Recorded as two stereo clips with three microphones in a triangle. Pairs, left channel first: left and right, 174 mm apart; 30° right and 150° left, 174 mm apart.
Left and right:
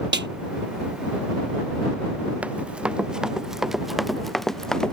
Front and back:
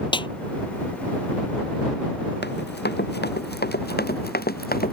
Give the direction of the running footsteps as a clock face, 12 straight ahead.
12 o'clock.